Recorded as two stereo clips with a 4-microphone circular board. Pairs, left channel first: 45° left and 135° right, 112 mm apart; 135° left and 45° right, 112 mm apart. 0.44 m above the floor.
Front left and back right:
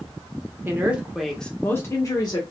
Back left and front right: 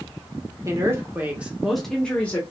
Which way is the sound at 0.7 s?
80° right.